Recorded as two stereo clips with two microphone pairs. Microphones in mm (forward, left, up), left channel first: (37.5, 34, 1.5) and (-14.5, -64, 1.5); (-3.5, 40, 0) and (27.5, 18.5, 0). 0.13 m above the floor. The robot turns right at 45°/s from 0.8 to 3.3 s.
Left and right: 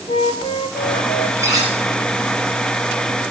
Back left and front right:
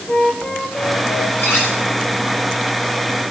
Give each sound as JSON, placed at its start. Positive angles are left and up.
{"t": 0.1, "sound": "a flute", "azimuth_deg": 85, "distance_m": 3.0}
{"t": 1.4, "sound": "cutlery clinking", "azimuth_deg": 175, "distance_m": 9.0}